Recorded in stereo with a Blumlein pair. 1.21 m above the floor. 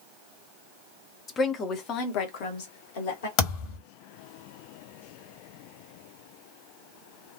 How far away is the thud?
About 1.5 m.